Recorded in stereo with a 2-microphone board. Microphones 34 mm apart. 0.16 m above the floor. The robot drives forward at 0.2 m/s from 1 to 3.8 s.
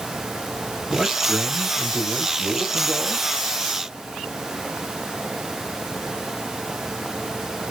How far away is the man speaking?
About 2.5 m.